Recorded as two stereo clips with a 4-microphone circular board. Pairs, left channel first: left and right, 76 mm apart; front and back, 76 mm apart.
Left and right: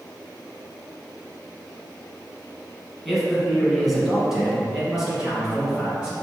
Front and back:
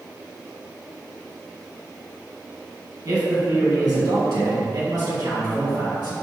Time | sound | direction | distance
3.0 | a man speaking | straight behind | 1.5 m